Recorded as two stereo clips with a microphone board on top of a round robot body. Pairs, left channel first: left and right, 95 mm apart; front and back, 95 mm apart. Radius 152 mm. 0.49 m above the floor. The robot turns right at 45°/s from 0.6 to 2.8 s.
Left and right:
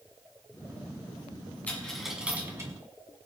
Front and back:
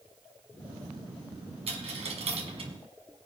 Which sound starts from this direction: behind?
A dropped coin, at 1.7 s.